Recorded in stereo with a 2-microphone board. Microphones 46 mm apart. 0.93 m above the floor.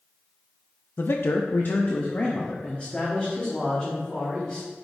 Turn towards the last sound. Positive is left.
turn(degrees=20)  # may be behind; listen again after turning